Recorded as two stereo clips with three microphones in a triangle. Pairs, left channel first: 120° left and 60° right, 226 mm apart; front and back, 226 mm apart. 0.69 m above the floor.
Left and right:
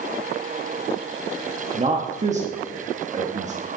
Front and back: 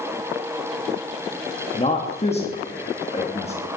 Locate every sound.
1.7 s a man speaking: 35° right, 1.2 m